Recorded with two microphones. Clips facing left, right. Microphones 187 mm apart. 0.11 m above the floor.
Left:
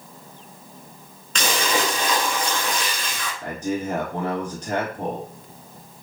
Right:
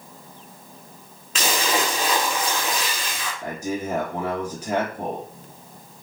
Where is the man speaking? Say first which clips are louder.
Left 2 dB; 10° right (ahead or behind), 1.6 m.